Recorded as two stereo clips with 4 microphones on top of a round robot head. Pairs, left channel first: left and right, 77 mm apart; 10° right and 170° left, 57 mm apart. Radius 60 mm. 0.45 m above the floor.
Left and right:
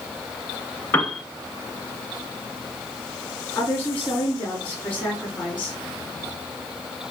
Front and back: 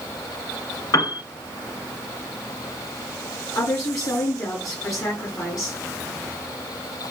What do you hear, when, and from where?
0.9 s a piano: 20° left, 1.4 m
3.5 s a woman speaking: 20° left, 7.5 m